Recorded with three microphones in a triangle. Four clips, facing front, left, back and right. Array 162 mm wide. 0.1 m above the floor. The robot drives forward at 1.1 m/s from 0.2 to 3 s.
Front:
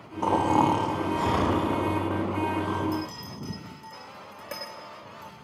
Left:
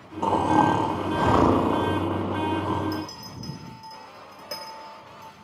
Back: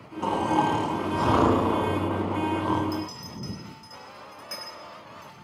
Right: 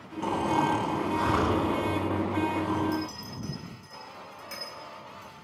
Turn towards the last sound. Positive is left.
turn(degrees=40)